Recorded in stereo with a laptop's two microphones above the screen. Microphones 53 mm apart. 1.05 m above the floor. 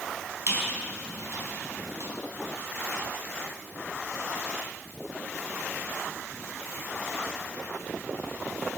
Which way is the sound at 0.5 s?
70° right (ahead or behind).